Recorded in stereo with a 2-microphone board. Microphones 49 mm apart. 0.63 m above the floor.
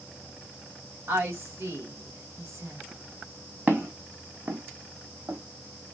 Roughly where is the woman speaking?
Right.